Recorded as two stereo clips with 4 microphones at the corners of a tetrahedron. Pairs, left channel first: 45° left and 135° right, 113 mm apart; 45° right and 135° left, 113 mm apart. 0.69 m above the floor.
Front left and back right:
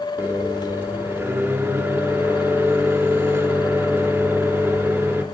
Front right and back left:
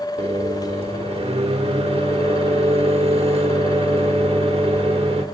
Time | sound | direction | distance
0.2 | a microwave | 155° left | 1.2 m